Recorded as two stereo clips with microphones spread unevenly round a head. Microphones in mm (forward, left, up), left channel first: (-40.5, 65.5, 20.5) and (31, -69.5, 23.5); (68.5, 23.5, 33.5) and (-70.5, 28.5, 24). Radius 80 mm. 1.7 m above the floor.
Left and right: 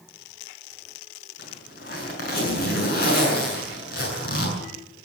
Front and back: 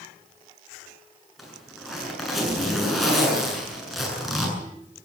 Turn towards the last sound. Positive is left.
turn(degrees=90)